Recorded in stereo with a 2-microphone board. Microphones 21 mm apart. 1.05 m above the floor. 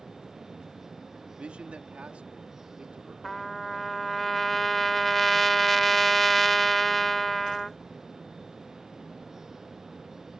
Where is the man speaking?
65° right (ahead or behind).